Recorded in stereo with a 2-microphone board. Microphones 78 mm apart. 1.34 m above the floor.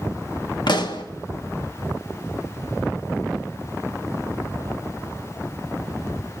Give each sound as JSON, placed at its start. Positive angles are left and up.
{"t": 0.7, "sound": "a pop", "side_deg": 70, "distance_m": 1.7}